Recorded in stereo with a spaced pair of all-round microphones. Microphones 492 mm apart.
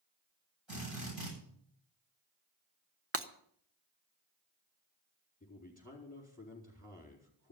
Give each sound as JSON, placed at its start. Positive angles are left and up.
{"t": 0.7, "sound": "a drill", "side_deg": -60, "distance_m": 9.5}
{"t": 3.1, "sound": "breaking glass", "side_deg": -25, "distance_m": 0.8}
{"t": 5.4, "sound": "a man speaking", "side_deg": 15, "distance_m": 4.0}